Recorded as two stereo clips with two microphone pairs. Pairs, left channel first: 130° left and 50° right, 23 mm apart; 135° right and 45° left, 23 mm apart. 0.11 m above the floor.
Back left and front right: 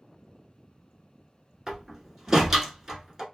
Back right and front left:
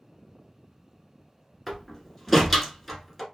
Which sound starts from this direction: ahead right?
A door slam, at 1.7 s.